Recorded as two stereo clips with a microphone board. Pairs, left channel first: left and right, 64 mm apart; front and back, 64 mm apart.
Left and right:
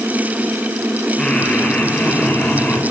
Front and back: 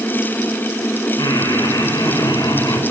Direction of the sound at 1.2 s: 15° left.